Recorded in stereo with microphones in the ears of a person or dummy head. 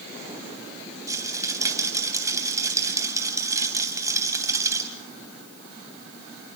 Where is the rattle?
15° right (ahead or behind), 2.5 m.